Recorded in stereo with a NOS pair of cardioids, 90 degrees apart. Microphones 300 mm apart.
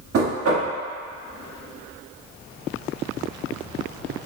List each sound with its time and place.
0.1 s knocking: 50° right, 1.5 m